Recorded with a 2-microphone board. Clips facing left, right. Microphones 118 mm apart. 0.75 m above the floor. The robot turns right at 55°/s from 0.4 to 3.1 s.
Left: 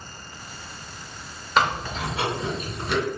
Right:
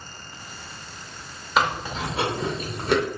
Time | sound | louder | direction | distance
1.6 | chewing | left 1 dB | 5° right (ahead or behind) | 0.7 m